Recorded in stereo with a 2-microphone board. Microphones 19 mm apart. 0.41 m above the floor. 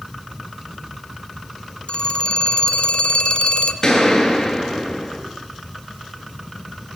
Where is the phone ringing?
55° left (ahead or behind), 3 m.